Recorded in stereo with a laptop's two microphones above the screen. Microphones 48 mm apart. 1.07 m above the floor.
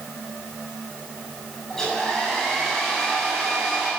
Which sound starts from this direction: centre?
A hair dryer, at 1.7 s.